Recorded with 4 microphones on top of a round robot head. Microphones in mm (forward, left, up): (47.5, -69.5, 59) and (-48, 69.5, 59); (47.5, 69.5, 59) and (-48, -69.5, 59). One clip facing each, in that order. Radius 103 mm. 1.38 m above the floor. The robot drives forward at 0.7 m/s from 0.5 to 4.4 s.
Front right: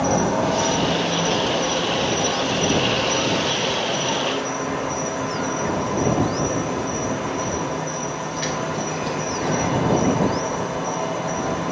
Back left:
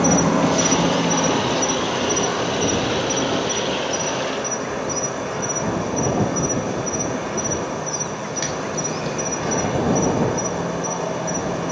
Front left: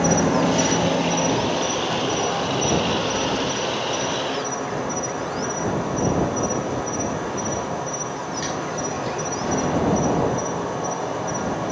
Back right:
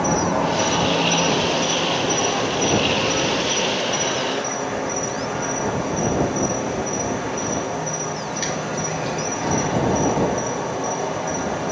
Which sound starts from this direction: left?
An insect, at 0.0 s.